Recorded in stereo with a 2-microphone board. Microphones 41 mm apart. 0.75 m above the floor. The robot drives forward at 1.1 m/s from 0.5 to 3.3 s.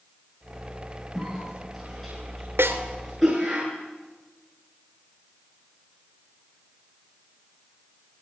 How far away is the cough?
About 7 m.